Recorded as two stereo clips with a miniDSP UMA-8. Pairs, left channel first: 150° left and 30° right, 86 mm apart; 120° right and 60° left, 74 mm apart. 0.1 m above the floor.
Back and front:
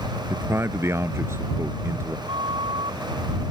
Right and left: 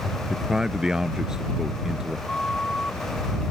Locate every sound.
0.3 s a man speaking: 15° right
2.3 s a flute: 40° right